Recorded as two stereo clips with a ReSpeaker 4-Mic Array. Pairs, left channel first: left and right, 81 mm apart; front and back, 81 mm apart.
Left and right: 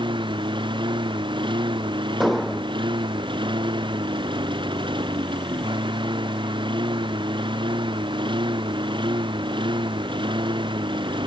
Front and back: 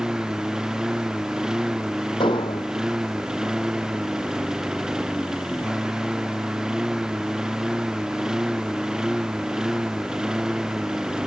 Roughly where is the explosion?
Ahead.